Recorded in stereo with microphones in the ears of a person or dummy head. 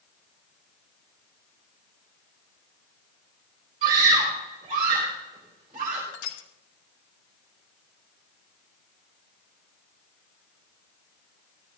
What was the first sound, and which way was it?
A scream, 35° right (ahead or behind).